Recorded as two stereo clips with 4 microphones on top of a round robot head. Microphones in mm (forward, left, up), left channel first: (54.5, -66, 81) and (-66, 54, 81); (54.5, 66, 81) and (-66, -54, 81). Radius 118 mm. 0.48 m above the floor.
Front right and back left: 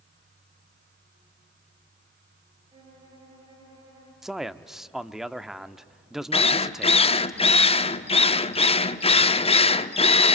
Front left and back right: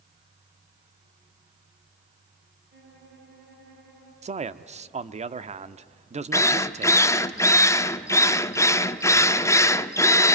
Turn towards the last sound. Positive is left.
turn(degrees=-20)